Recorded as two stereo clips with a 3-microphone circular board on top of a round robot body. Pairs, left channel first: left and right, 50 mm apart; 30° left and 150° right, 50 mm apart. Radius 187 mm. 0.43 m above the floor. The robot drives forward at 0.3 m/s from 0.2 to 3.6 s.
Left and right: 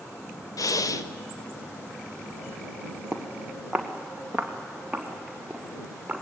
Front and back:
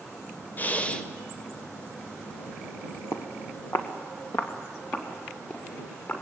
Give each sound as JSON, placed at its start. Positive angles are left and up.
{"t": 0.6, "sound": "breathing", "azimuth_deg": 90, "distance_m": 0.5}
{"t": 3.1, "sound": "footsteps", "azimuth_deg": 10, "distance_m": 1.6}